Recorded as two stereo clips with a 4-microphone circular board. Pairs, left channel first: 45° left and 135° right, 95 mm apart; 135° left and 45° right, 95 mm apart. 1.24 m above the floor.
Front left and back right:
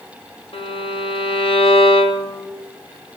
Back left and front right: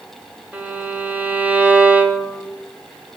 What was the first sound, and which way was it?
A violin, 30° left.